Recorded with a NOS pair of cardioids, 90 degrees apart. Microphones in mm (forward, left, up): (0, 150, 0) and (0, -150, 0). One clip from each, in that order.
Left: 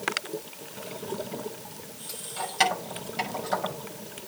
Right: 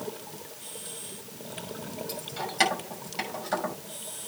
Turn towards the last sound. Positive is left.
turn(degrees=-5)